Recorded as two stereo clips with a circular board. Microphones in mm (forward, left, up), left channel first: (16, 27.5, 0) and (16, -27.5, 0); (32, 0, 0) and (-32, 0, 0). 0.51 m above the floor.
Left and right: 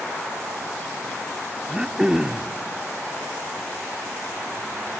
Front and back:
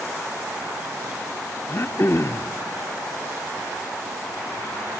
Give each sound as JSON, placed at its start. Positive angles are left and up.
{"t": 1.7, "sound": "throat clearing", "azimuth_deg": -15, "distance_m": 0.5}